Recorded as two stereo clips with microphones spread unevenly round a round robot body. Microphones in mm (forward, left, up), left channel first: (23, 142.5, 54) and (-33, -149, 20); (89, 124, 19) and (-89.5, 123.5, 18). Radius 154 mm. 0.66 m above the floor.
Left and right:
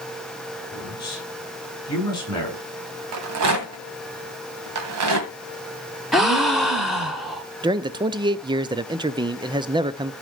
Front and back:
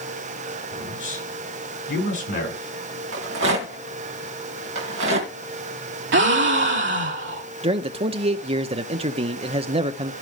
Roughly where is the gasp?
Behind.